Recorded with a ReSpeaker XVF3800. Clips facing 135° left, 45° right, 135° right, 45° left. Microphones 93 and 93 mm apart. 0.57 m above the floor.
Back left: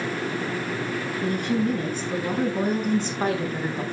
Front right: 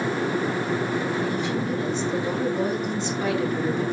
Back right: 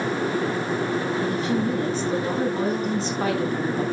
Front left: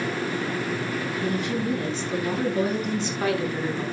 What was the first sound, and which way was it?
A woman speaking, 170° left.